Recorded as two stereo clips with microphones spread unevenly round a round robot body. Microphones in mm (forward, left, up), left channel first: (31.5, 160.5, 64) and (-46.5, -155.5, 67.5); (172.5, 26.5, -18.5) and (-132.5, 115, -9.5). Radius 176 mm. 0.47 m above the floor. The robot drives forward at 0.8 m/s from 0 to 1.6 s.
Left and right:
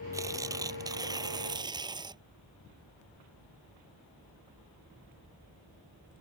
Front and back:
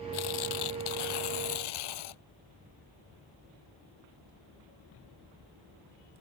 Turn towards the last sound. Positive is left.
turn(degrees=-25)